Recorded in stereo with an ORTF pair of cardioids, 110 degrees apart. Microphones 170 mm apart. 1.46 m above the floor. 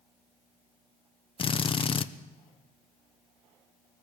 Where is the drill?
35° left, 1.0 m.